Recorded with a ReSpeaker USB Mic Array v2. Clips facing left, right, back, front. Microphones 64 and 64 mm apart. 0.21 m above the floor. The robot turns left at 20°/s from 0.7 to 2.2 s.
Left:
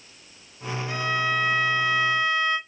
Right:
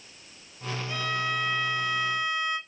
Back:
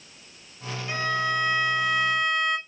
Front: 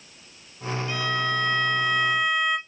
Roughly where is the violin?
Behind left.